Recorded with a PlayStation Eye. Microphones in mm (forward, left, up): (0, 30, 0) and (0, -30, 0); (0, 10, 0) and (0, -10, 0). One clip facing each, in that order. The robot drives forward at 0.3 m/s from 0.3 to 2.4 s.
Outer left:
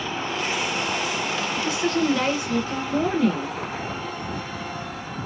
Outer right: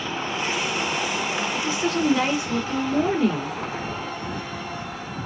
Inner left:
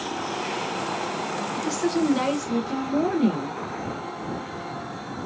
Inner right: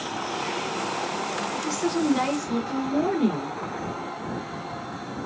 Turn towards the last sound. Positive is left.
turn(degrees=-10)  # may be behind; listen again after turning